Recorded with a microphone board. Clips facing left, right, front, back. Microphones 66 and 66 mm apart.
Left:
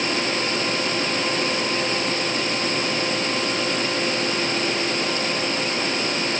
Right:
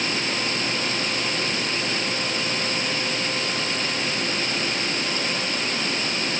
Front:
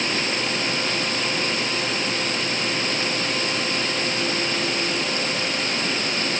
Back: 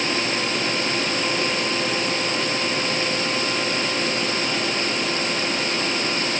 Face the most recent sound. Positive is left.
No sound to turn to.